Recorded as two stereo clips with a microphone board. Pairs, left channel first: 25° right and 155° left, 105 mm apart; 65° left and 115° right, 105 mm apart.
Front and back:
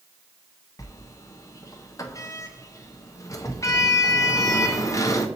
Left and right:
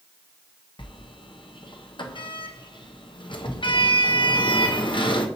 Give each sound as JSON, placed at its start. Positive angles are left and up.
{"t": 0.8, "sound": "a sliding door", "azimuth_deg": 35, "distance_m": 0.7}